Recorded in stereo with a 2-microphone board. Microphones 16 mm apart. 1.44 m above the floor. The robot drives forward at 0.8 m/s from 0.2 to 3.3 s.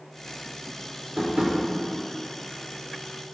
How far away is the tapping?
About 2.5 m.